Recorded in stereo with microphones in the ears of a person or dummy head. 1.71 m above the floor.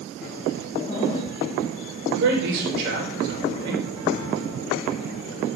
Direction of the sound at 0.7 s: 25° left (ahead or behind).